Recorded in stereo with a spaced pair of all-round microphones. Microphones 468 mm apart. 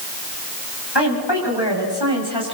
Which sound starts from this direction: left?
A woman speaking, at 0.9 s.